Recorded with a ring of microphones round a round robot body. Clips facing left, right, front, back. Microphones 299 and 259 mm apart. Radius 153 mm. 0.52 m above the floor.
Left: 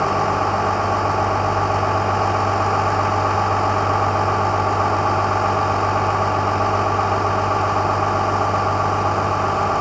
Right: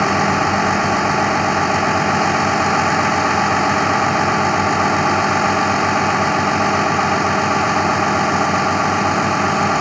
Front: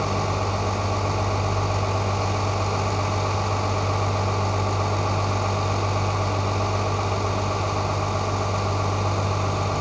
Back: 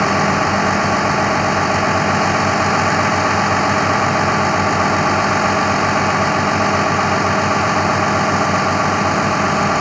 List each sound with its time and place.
0.0 s a vehicle: 140° right